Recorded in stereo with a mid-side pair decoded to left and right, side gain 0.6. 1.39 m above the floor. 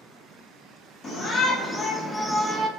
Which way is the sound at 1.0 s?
40° left.